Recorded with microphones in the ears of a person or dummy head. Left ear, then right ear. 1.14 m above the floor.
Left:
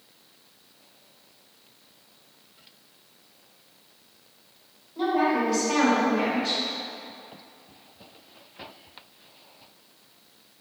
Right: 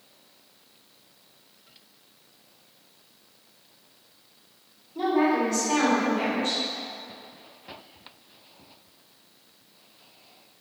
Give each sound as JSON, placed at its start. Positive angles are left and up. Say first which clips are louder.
{"t": 5.0, "sound": "a woman speaking", "louder": "even", "side_deg": -35, "distance_m": 1.1}